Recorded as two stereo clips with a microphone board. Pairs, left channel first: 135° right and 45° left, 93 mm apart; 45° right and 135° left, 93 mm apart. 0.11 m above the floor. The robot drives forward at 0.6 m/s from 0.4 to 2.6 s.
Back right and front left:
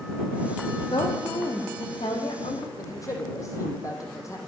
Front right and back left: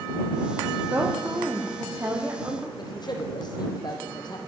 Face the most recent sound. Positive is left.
turn(degrees=-80)